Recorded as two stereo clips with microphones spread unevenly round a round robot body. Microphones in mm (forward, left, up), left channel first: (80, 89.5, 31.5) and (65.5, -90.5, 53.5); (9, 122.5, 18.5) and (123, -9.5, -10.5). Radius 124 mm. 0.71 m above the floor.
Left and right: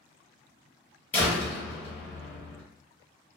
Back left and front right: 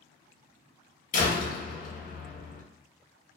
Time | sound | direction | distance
1.1 | a door slam | 150° left | 0.7 m